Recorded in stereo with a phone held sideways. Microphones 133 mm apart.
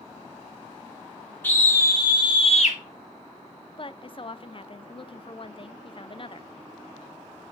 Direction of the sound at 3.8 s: 40° left (ahead or behind).